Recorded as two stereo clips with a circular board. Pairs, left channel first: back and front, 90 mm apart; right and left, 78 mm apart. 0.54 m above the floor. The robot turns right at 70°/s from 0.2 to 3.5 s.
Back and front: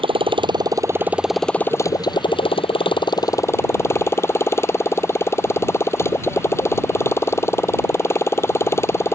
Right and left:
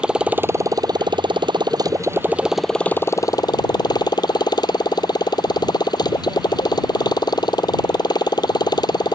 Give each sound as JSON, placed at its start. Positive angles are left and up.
{"t": 0.0, "sound": "a motorcycle", "azimuth_deg": 10}